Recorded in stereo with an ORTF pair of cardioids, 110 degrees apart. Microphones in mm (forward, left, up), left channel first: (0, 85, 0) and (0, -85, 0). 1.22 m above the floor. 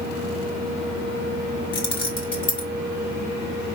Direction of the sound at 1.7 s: 30° left.